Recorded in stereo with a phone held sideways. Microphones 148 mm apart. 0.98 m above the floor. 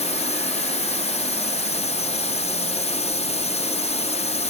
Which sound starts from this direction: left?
A drone, at 0.0 s.